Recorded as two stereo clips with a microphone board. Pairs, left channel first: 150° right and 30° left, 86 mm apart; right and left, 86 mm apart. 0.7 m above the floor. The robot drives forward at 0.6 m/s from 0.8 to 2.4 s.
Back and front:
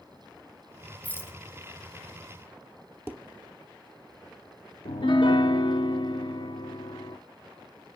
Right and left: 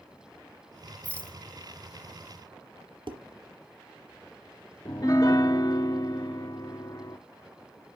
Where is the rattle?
125° right, 0.7 m; by 1.4 s 150° right, 0.8 m.